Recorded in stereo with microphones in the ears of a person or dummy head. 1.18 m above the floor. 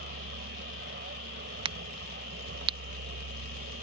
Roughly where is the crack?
Right.